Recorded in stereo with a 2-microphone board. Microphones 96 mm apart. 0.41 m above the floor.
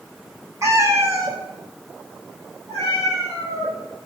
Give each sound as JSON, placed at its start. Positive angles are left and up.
{"t": 0.6, "sound": "a cat meowing", "side_deg": -35, "distance_m": 1.5}